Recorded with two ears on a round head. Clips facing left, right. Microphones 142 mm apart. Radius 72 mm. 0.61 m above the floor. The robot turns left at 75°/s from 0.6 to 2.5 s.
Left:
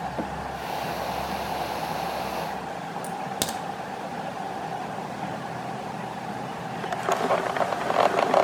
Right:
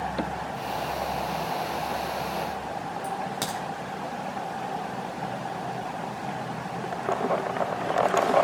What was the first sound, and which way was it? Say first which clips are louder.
A crack: left 1 dB; 35° left (ahead or behind).